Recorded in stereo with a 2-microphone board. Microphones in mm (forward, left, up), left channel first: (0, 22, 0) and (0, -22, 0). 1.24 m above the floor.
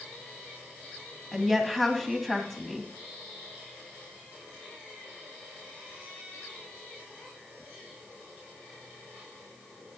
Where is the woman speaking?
5° left (ahead or behind), 2 m.